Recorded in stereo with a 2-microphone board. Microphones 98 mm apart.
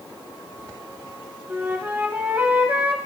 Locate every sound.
1.5 s a flute: 25° right (ahead or behind), 0.8 m